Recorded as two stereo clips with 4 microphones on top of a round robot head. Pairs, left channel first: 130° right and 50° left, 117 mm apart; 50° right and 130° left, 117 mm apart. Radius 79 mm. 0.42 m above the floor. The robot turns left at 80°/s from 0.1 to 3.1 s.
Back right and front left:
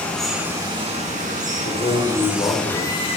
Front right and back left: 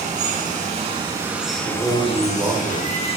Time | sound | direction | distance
0.0 | running water | 155° left | 2.5 m
1.6 | a man speaking | 105° right | 1.9 m